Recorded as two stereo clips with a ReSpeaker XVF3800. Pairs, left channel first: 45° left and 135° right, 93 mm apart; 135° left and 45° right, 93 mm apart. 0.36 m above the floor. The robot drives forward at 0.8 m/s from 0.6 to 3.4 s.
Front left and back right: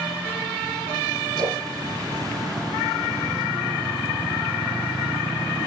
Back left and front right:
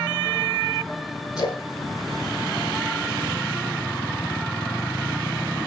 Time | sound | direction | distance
1.4 | a splash | straight behind | 6.5 m